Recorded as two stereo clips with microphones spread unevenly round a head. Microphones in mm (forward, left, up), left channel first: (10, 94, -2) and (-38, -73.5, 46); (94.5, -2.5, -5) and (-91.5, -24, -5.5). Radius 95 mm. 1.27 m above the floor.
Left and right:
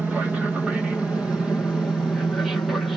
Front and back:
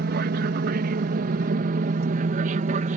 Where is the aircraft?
160° left; by 3.0 s 150° left.